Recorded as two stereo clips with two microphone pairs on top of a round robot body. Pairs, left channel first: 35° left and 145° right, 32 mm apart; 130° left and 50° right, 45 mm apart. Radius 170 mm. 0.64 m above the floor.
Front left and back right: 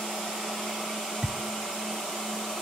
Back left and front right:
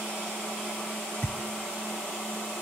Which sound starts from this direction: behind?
A thud, at 1.2 s.